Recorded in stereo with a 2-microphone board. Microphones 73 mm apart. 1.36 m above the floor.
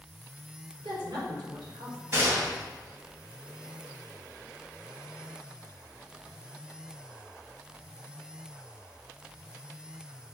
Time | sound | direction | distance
0.8 | a woman speaking | 90° right | 4.5 m
2.1 | a gunshot | 35° right (ahead or behind) | 3.5 m